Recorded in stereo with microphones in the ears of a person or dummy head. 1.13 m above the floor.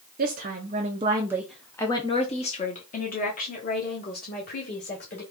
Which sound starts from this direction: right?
A woman speaking, at 0.2 s.